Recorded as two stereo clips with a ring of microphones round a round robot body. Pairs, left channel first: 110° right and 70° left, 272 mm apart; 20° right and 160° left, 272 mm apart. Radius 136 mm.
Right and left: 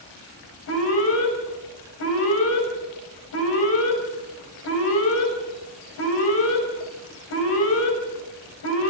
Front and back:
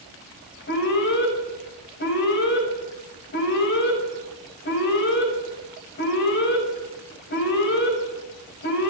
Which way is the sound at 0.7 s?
75° right.